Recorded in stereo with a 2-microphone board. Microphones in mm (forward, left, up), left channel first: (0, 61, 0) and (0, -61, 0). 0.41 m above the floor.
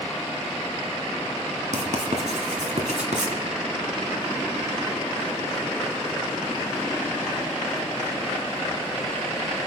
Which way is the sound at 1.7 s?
80° right.